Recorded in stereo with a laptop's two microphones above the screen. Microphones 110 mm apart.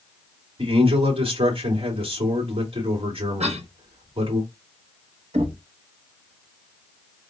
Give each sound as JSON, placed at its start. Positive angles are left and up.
{"t": 0.6, "sound": "a man speaking", "side_deg": -50, "distance_m": 2.5}
{"t": 3.4, "sound": "a cough", "side_deg": -65, "distance_m": 0.9}
{"t": 5.3, "sound": "knocking", "side_deg": -70, "distance_m": 1.0}